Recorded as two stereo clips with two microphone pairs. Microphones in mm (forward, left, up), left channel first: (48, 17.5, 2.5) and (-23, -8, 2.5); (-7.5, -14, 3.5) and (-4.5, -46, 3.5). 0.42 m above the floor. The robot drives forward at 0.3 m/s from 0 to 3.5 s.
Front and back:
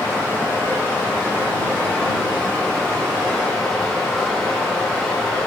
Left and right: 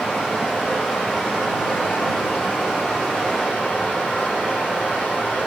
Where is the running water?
75° left, 2.5 m; by 5.5 s 95° left, 2.5 m.